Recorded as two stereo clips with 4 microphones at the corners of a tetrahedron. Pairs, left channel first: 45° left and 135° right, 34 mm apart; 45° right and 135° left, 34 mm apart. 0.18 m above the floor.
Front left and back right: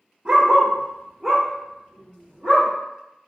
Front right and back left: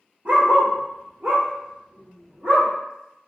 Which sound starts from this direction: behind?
A dog barking, at 0.2 s.